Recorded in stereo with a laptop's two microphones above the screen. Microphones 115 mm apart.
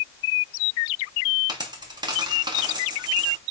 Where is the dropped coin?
40° right (ahead or behind), 0.6 m.